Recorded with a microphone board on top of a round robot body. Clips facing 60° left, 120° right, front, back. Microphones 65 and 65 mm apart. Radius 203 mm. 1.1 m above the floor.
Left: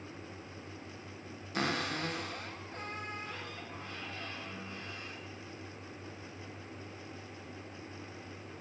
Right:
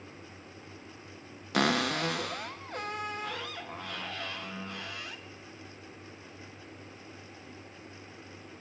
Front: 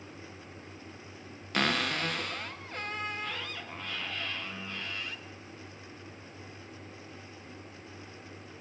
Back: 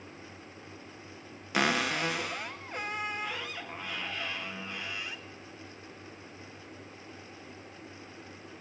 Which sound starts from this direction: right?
A cupboard door, at 1.5 s.